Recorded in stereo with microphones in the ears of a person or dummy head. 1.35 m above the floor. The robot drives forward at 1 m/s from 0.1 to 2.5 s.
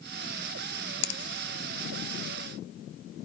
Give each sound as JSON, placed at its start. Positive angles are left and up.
{"t": 1.0, "sound": "a finger snap", "side_deg": 65, "distance_m": 0.8}